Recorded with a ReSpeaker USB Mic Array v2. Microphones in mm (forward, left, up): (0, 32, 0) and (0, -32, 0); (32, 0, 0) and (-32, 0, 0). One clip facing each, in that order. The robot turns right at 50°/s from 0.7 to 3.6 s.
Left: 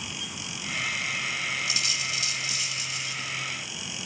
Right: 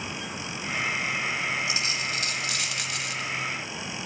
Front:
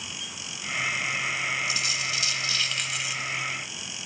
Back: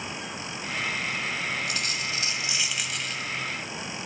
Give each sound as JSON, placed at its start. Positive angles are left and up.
{"t": 1.7, "sound": "a dropped coin", "azimuth_deg": -150, "distance_m": 1.7}